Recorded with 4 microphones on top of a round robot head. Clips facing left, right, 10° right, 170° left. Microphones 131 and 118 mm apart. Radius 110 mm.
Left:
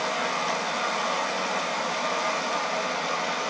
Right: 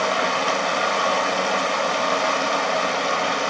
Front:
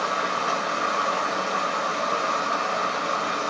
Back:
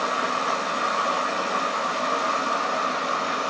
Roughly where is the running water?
Right.